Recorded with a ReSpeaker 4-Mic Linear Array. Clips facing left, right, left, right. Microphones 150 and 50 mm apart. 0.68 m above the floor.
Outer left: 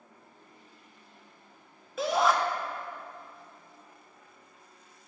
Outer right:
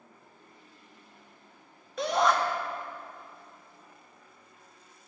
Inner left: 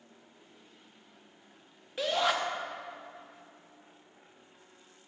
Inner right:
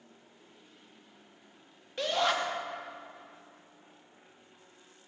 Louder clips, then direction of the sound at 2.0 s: Even, even; centre (ahead or behind).